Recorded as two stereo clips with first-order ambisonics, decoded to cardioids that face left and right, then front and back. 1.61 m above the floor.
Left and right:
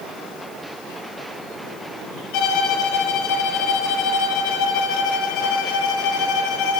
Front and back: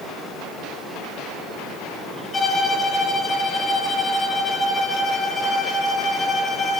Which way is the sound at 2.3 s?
75° left.